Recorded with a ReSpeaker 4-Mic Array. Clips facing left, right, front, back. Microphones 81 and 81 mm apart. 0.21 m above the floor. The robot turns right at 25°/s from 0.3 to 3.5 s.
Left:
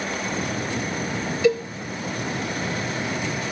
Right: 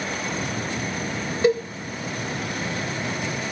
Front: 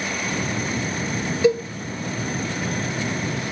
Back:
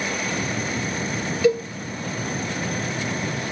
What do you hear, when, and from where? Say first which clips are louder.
1.4 s a cowbell: even, front 1 dB; 55° right, 1.5 m; by 1.6 s 50° right, 1.5 m